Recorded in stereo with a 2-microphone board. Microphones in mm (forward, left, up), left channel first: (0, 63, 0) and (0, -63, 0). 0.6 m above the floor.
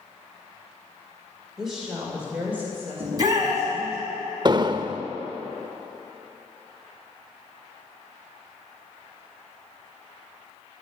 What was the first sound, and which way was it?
A woman speaking, centre (ahead or behind).